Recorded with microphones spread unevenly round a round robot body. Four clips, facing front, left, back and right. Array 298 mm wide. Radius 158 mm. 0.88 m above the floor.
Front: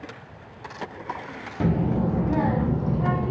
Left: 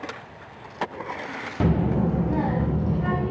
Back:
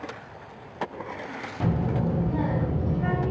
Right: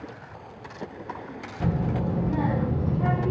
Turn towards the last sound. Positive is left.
turn(degrees=0)